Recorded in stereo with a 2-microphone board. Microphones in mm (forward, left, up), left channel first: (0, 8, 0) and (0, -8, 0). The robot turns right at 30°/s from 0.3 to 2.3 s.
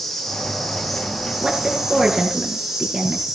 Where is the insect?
155° left, 5 m; by 3.4 s 145° right, 5 m.